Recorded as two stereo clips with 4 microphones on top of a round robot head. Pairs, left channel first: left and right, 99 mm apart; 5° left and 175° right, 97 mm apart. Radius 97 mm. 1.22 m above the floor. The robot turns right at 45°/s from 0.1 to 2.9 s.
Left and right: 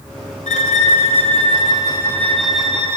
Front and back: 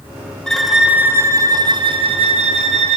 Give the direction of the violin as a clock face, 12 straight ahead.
9 o'clock.